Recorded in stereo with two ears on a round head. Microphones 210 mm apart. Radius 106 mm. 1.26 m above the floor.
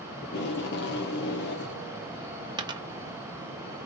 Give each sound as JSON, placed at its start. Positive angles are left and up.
{"t": 0.2, "sound": "tape being pulled", "side_deg": 45, "distance_m": 0.9}
{"t": 2.6, "sound": "a dropped coin", "side_deg": -15, "distance_m": 0.7}